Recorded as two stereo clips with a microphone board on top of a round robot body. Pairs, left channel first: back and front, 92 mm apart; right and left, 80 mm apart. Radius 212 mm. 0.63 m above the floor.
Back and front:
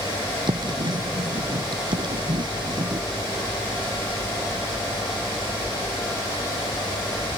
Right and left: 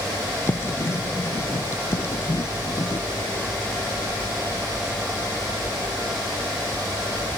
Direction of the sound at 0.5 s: 35° right.